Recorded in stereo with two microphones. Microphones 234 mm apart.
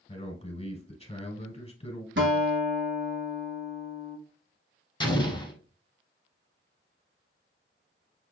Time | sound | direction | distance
0.1 | a man speaking | 25° left (ahead or behind) | 1.3 m
2.2 | a guitar | 55° right (ahead or behind) | 1.1 m
5.0 | an explosion | 20° left (ahead or behind) | 1.3 m